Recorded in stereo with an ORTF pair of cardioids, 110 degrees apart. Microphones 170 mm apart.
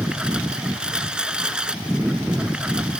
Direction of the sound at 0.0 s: 5° right.